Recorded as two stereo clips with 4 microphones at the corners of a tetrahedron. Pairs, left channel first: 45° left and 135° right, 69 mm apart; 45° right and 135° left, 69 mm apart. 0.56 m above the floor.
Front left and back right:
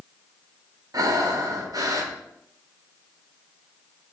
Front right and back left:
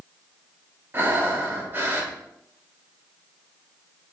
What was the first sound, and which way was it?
Breathing, 165° right.